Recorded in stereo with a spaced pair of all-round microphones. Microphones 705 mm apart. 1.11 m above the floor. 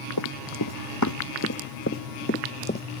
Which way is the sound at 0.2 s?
30° left (ahead or behind).